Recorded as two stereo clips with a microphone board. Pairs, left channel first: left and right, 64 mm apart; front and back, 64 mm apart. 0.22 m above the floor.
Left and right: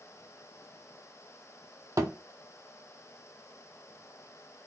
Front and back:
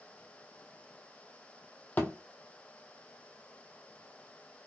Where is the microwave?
I don't hear a microwave.